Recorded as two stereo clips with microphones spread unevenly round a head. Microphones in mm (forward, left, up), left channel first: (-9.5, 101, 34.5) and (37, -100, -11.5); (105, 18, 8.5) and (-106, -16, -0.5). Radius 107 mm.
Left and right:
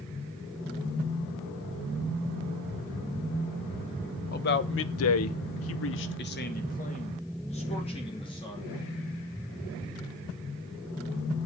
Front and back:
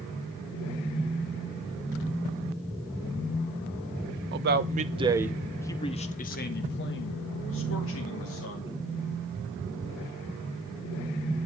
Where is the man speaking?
155° left, 1.2 m; by 8.7 s 35° left, 3 m.